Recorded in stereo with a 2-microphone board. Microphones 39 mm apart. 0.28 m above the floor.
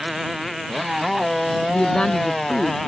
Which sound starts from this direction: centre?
A motorcycle, at 0.0 s.